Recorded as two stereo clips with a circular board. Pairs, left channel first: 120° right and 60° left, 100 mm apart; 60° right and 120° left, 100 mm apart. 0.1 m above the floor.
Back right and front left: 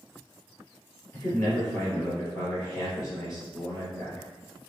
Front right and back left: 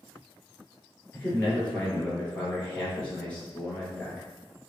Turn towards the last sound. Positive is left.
turn(degrees=-125)